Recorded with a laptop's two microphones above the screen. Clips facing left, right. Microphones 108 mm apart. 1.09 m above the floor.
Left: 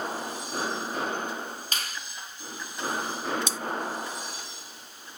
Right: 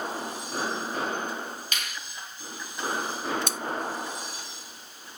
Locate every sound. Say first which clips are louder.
1.7 s a finger snap: left 1 dB; 35° left (ahead or behind), 1.8 m
3.5 s cutlery clinking: even; 55° right (ahead or behind), 0.6 m